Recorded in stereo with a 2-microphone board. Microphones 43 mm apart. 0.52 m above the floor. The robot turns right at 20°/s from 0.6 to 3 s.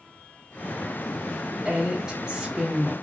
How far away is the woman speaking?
About 1.1 m.